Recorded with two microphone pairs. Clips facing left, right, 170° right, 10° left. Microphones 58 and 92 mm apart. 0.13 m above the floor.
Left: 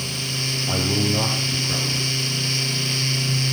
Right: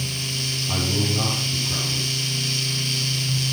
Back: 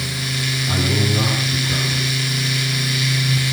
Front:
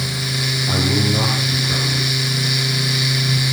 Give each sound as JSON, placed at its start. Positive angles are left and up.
{"t": 0.7, "sound": "a man speaking", "azimuth_deg": 80, "distance_m": 5.5}